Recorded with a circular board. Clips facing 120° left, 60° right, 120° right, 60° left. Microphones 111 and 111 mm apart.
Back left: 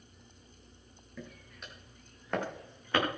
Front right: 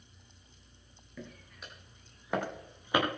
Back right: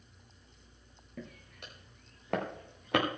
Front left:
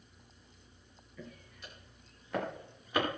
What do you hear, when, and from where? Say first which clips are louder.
1.2 s footsteps: even, back right 2 dB; 150° right, 6 m; by 3.0 s 135° right, 5.5 m